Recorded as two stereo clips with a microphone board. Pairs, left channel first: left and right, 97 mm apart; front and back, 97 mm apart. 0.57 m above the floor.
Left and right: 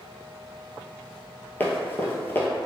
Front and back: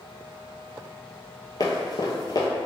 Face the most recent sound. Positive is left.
turn(degrees=25)